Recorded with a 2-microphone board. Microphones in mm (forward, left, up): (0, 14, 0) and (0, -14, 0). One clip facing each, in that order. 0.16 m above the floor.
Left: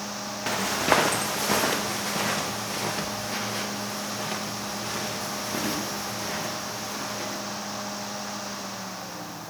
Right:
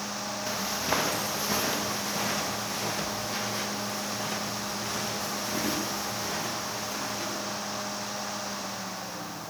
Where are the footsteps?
85° left, 1.3 m; by 7.4 s 50° left (ahead or behind), 9.5 m.